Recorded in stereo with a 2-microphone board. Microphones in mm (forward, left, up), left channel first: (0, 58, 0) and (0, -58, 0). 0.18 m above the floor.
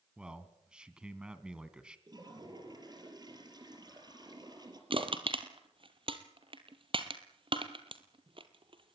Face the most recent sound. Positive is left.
turn(degrees=-50)  # may be behind; listen again after turning